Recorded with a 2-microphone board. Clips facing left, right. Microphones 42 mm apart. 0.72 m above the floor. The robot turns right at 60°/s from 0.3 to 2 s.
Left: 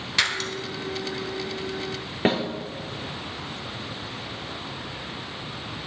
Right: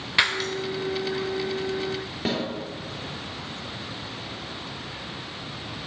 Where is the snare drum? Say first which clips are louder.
Left 5 dB; 40° left (ahead or behind), 2 m.